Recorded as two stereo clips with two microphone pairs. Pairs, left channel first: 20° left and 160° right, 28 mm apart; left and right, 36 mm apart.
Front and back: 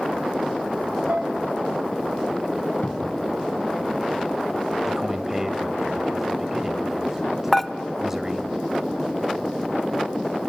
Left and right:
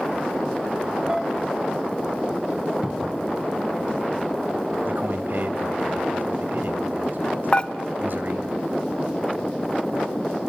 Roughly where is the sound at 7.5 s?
Left.